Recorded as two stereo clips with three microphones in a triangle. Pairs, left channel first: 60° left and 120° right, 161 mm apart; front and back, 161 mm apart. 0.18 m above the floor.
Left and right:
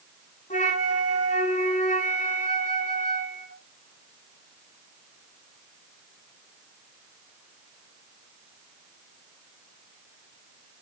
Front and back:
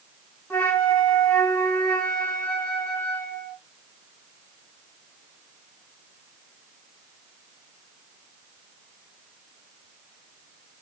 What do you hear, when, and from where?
0.5 s a flute: 80° left, 2.5 m